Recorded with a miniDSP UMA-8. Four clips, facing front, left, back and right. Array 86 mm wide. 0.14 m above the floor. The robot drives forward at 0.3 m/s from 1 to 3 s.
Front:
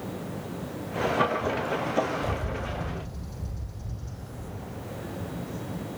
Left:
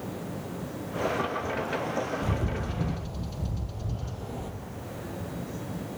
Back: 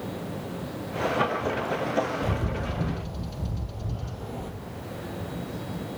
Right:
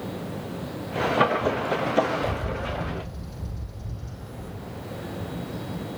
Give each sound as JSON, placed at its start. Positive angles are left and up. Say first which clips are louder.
{"t": 2.2, "sound": "a bird", "louder": "right 3 dB, back 2 dB", "azimuth_deg": 140, "distance_m": 2.0}